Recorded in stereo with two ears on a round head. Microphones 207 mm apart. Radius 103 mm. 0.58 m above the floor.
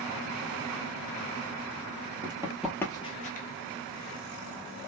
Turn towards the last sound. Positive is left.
turn(degrees=40)  # may be behind; listen again after turning